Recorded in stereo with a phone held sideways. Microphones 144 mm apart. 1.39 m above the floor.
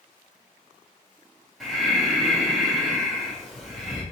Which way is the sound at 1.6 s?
Centre (ahead or behind).